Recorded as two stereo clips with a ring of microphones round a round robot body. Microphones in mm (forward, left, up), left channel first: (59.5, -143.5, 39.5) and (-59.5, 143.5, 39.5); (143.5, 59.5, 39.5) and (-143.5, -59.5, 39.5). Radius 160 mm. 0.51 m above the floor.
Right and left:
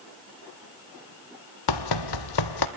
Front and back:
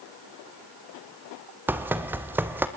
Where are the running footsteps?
75° right, 1.0 m.